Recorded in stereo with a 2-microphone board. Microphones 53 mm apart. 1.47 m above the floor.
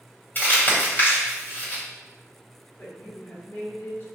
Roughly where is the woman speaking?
Left.